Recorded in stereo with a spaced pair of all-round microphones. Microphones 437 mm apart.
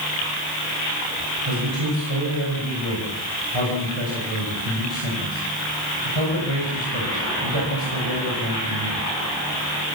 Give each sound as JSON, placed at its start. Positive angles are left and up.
{"t": 1.5, "sound": "a man speaking", "side_deg": -85, "distance_m": 6.0}